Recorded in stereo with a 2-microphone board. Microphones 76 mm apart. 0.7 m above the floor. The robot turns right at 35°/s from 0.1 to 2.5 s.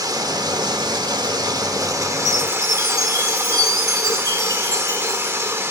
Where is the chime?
65° right (ahead or behind), 4 m; by 5.6 s 60° right (ahead or behind), 4 m.